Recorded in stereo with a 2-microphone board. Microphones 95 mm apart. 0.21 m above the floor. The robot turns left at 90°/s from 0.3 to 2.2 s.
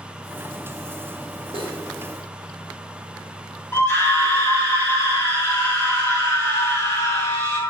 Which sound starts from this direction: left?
A scream, at 3.7 s.